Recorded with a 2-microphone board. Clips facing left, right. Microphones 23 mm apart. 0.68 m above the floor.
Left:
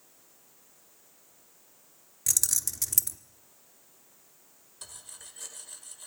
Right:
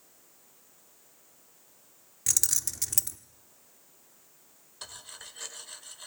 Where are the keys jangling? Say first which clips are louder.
Even; 15° right (ahead or behind), 0.9 m.